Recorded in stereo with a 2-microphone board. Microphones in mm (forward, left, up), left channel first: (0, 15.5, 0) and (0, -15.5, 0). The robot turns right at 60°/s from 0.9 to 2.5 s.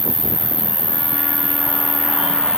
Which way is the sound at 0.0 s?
55° left.